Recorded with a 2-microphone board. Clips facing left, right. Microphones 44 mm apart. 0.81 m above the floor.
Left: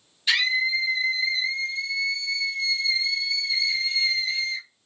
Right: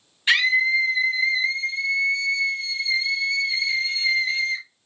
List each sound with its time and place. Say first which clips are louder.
0.3 s a scream: right 4 dB; 40° right (ahead or behind), 0.7 m